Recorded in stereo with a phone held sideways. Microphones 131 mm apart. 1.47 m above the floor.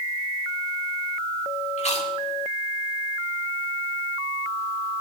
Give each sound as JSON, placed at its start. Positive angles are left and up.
{"t": 1.8, "sound": "chewing", "side_deg": 55, "distance_m": 2.5}